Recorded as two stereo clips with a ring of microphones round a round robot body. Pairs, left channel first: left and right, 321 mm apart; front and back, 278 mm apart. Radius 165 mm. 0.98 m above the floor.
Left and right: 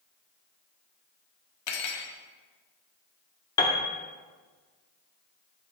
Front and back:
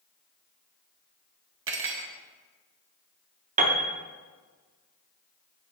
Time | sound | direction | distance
1.7 | cutlery clinking | 135° left | 0.8 m
3.6 | a piano | 155° left | 0.5 m